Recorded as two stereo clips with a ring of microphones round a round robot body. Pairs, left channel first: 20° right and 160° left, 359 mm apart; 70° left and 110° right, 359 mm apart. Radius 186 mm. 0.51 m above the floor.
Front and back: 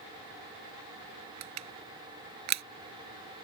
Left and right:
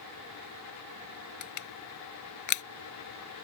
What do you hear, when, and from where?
1.4 s crushing: 110° left